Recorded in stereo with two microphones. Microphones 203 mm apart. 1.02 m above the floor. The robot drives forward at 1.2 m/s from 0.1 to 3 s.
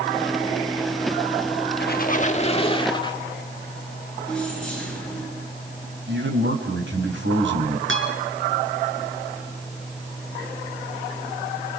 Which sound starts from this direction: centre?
Keys jangling, at 4.3 s.